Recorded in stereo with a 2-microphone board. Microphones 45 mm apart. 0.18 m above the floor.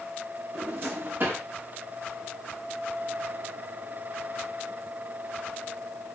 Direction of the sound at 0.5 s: 50° right (ahead or behind).